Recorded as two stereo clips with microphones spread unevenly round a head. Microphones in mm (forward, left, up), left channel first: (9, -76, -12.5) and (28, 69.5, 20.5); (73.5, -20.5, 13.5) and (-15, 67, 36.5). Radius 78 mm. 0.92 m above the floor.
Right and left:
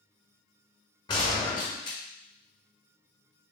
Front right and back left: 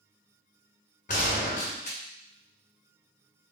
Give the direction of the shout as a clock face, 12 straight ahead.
No shout in this recording.